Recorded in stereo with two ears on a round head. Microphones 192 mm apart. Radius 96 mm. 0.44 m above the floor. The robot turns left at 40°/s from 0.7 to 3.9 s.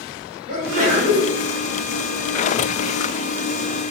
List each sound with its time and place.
0.5 s a sneeze: 40° right (ahead or behind), 1.6 m; by 1.3 s 25° right (ahead or behind), 1.6 m